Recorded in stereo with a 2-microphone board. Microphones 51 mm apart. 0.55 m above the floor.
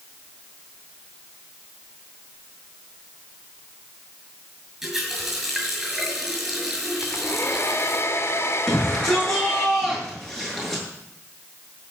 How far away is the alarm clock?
I don't hear an alarm clock.